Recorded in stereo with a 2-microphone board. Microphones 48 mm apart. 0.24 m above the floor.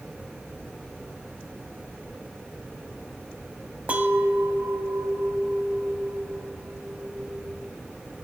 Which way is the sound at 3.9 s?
30° right (ahead or behind).